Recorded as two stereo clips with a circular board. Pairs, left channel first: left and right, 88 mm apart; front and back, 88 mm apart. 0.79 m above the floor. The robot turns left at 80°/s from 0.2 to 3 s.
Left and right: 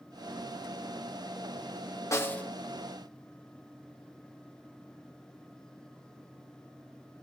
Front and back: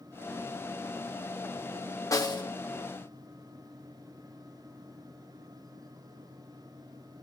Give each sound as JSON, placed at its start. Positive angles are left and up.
{"t": 2.1, "sound": "a snare drum", "azimuth_deg": 40, "distance_m": 1.6}